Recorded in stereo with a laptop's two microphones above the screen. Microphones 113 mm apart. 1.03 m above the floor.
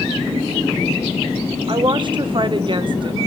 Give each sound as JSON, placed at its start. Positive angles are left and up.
{"t": 1.7, "sound": "a woman speaking", "side_deg": -45, "distance_m": 0.5}